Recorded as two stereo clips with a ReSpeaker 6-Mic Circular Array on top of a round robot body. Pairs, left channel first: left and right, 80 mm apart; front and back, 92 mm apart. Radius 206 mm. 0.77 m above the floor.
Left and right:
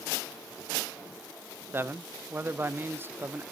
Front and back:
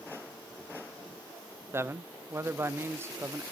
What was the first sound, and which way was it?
A man speaking, 135° right.